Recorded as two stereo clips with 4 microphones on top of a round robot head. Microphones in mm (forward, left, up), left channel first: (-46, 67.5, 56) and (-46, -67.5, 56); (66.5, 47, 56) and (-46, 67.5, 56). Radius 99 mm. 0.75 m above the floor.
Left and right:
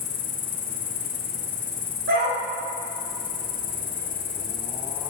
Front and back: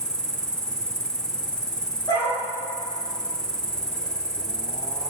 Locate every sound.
0.0 s an insect: 75° left, 4.5 m
2.1 s a dog barking: 75° right, 9.5 m